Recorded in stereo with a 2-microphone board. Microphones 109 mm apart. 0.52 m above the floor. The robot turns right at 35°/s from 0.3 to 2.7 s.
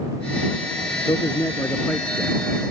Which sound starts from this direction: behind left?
A man speaking, at 1.1 s.